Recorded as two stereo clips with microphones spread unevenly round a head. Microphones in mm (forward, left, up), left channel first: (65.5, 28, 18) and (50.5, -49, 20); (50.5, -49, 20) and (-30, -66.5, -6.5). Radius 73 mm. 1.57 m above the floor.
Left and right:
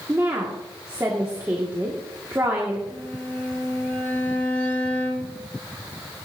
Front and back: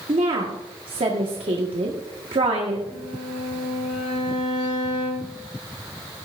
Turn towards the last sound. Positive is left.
turn(degrees=15)